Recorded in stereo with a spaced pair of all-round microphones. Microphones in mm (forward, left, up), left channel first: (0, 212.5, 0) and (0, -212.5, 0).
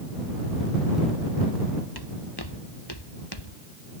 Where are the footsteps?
60° left (ahead or behind); by 3.5 s 70° left (ahead or behind).